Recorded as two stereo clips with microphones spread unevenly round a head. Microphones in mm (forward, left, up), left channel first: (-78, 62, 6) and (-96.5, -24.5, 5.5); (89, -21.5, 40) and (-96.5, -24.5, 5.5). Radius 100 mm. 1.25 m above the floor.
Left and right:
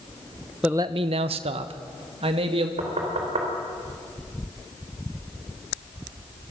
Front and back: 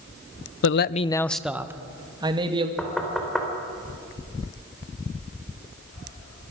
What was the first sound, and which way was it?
A man speaking, 15° right.